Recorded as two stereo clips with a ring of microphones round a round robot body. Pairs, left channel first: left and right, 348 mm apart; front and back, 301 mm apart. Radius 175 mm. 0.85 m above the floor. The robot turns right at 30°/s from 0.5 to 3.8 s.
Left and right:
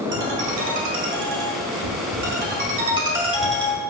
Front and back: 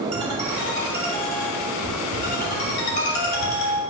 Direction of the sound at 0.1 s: 90° right.